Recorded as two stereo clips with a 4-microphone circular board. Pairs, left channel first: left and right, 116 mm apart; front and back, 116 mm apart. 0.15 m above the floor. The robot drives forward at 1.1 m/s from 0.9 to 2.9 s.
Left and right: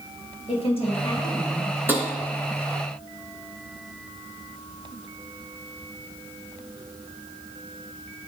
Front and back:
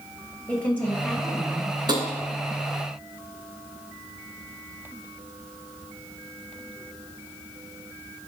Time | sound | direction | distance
0.5 | a woman speaking | 70° left | 2 m
1.9 | tapping | 155° right | 1.0 m